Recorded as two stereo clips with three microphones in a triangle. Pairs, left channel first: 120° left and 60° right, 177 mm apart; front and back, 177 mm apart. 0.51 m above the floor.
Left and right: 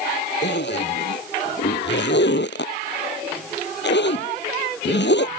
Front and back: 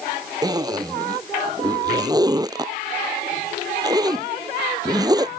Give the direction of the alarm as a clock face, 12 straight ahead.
No alarm in this recording.